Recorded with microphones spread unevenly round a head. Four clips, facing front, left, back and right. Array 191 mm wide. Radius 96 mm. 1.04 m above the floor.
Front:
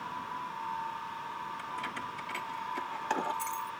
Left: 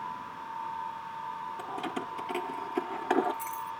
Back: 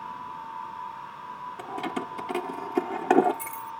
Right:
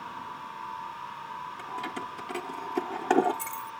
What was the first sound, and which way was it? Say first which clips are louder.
Keys jangling: even, back 6 dB; 160° left.